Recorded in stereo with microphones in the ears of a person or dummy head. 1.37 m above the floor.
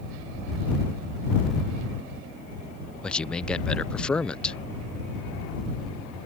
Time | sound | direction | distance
3.0 | a man speaking | 10° left (ahead or behind) | ?